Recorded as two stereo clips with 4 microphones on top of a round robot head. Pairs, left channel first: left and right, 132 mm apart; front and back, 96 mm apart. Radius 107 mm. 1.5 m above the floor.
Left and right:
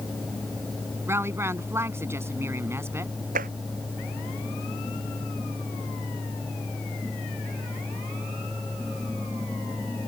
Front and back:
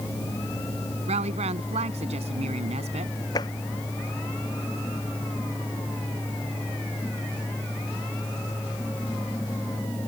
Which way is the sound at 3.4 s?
60° right.